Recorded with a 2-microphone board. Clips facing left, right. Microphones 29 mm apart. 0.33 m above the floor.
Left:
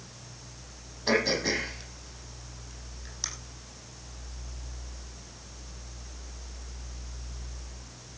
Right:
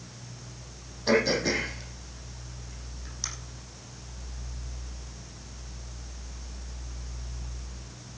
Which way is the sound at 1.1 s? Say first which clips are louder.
Right 2 dB; 10° left (ahead or behind).